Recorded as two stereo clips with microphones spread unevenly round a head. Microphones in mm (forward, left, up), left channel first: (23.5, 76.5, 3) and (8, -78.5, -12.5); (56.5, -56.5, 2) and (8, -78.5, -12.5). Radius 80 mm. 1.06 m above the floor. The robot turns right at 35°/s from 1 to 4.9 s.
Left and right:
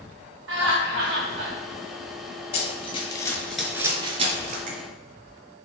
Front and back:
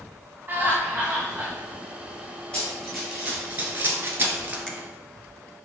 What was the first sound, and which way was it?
Laughter, 100° right.